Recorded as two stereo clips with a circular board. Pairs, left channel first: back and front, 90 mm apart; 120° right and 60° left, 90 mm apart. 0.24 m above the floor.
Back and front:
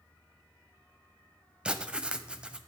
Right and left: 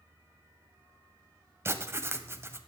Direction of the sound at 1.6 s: 65° left.